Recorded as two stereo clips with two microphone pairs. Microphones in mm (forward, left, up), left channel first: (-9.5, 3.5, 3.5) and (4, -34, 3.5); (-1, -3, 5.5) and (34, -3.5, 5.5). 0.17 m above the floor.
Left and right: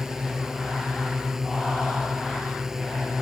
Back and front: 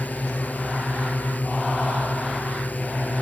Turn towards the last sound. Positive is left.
turn(degrees=-145)